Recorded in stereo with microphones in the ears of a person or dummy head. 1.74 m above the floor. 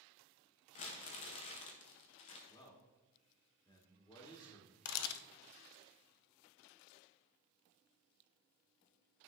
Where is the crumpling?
30° left (ahead or behind), 0.8 m.